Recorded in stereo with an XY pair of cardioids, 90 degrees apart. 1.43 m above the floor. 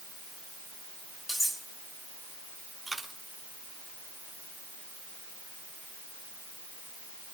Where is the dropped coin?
15° right, 6.5 m.